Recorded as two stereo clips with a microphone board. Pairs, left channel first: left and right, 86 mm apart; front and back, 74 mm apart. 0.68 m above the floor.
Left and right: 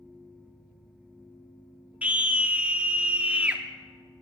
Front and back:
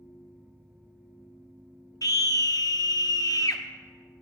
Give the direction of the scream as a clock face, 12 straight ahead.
1 o'clock.